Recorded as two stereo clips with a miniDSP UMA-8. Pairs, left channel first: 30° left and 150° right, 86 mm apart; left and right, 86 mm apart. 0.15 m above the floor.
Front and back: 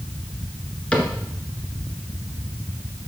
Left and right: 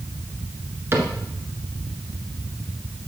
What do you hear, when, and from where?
0.9 s a cupboard door: 40° right, 1.6 m